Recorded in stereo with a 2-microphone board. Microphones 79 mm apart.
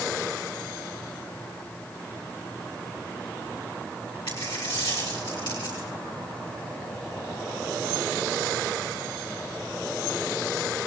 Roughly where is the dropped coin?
Left.